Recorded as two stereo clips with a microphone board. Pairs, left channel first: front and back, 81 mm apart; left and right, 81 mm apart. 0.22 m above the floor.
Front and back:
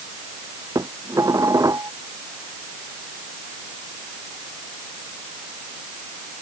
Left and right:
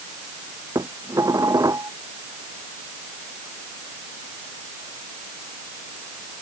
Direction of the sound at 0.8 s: 135° right.